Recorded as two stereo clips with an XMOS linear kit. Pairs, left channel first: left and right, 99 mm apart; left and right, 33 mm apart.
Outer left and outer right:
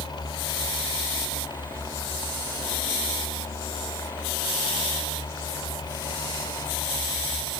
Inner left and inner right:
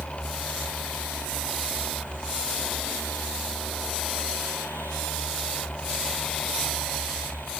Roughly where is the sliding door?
No sliding door in this recording.